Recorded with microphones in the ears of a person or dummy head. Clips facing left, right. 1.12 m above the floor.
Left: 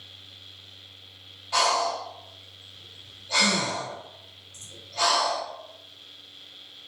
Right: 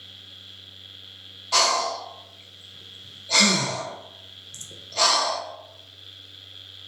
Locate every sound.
1.5 s breathing: 60° right (ahead or behind), 0.6 m